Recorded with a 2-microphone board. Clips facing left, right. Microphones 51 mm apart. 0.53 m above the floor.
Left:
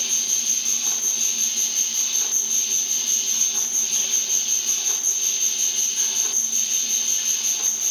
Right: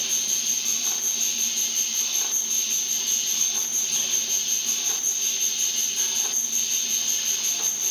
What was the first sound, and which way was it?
An insect, 30° right (ahead or behind).